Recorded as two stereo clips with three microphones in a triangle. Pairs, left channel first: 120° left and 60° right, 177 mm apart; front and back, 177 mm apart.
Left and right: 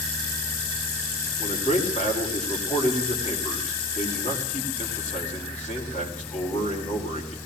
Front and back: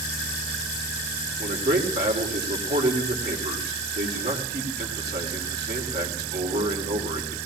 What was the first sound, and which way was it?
A man speaking, 165° left.